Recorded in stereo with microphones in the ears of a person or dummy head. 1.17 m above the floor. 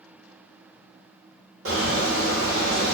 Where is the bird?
70° right (ahead or behind), 1.4 m.